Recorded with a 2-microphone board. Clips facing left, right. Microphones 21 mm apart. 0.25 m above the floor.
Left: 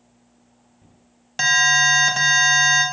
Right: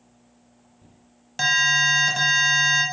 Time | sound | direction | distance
1.4 | an alarm | 10° left (ahead or behind) | 1.4 m